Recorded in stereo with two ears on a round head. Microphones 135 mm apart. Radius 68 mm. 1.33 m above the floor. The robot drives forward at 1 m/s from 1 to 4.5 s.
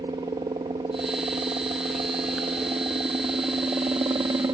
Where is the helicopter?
25° right (ahead or behind); by 4.5 s 20° right (ahead or behind).